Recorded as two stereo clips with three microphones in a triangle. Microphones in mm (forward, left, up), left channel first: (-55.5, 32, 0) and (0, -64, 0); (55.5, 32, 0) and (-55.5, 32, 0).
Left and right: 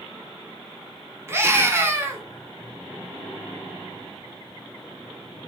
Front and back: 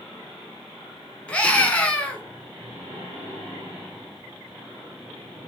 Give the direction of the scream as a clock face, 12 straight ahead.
2 o'clock.